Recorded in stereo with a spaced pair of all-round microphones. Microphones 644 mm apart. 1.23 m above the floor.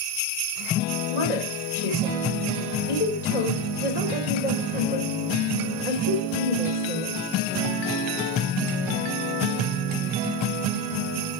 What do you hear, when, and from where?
1.1 s a woman speaking: 85° left, 3.5 m